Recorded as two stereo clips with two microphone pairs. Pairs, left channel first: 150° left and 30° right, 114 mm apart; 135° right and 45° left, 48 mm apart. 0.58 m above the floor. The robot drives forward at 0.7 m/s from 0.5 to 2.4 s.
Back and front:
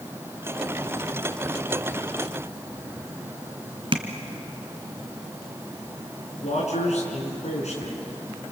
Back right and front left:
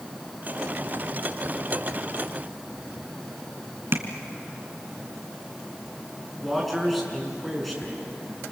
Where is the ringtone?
I don't hear a ringtone.